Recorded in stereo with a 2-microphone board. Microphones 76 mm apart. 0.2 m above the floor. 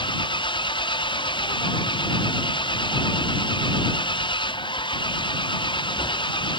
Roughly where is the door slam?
No door slam in this recording.